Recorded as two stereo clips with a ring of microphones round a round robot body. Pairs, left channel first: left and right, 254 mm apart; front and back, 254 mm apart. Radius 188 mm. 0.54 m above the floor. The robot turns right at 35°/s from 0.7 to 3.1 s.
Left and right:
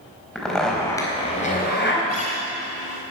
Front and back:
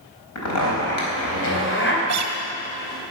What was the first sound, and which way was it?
A zipper, straight ahead.